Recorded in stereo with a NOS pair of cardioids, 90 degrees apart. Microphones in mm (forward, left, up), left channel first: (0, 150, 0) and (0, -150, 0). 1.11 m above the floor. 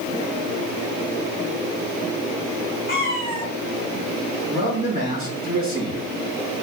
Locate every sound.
2.9 s a cat meowing: 35° left, 1.5 m
4.5 s a man speaking: 25° right, 1.9 m